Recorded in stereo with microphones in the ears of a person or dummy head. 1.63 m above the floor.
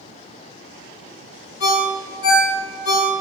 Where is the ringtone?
60° left (ahead or behind), 1.0 m.